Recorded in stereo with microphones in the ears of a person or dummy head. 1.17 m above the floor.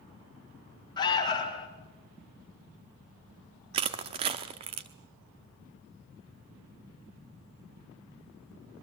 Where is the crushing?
30° right (ahead or behind), 1.0 m.